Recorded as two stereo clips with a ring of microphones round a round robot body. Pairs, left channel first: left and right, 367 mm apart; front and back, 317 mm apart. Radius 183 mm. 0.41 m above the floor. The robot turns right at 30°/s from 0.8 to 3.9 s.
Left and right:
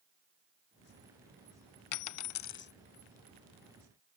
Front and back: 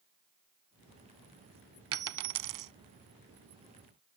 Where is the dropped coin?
130° left; by 2.7 s 155° left.